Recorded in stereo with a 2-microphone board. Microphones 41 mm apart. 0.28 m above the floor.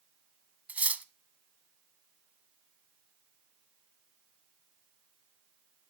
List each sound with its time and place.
0.7 s cutlery clinking: 40° right (ahead or behind), 1.1 m